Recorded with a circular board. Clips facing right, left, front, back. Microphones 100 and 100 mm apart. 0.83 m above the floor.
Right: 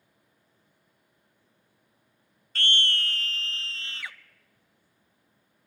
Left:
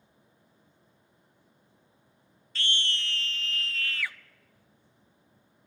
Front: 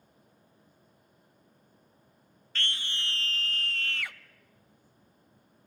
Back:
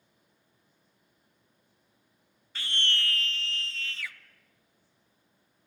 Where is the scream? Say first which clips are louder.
Right 4 dB, back 3 dB; 105° right, 0.5 m; by 4.2 s 20° right, 1.1 m.